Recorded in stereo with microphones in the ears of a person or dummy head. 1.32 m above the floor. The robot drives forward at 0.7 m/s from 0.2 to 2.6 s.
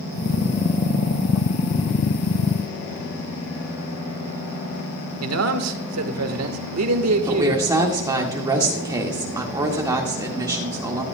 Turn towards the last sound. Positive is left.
turn(degrees=-15)  # may be behind; listen again after turning